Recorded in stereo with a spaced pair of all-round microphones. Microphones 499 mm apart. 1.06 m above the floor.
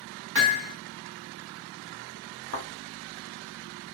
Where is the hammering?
45° right (ahead or behind), 1.1 m.